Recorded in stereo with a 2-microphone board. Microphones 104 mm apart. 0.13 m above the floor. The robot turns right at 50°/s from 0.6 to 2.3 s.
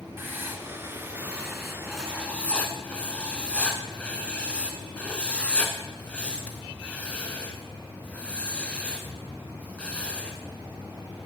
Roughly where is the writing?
Right.